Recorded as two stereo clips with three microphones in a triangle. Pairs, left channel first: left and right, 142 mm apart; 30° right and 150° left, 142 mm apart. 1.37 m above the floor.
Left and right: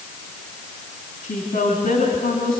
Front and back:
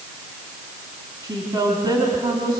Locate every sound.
1.2 s a woman speaking: 95° left, 3.5 m